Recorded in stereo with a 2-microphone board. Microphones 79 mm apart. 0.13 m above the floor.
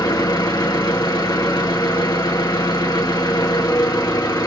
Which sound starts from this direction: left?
An engine running, at 0.0 s.